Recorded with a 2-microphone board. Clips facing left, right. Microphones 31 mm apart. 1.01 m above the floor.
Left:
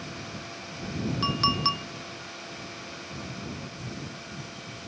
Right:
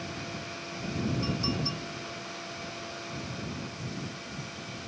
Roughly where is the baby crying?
No baby crying in this recording.